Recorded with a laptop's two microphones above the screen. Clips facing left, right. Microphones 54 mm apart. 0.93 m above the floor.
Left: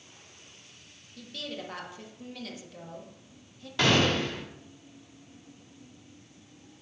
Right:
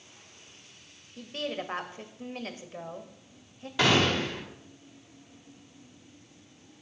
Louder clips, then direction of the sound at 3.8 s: Even; 5° right (ahead or behind).